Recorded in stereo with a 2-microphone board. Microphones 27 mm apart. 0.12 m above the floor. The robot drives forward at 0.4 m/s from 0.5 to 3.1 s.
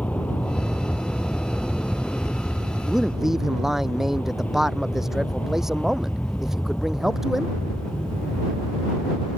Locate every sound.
0.0 s an aircraft: 60° left (ahead or behind)
2.9 s a man speaking: 15° right (ahead or behind)